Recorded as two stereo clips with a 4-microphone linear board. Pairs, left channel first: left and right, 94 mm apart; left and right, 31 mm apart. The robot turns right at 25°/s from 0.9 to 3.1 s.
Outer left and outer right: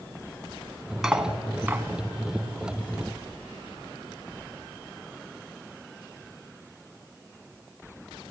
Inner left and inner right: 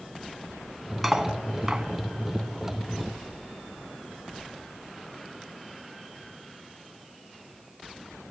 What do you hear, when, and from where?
1.0 s cutlery clinking: 5° right (ahead or behind), 1.2 m; by 1.9 s 25° right (ahead or behind), 1.2 m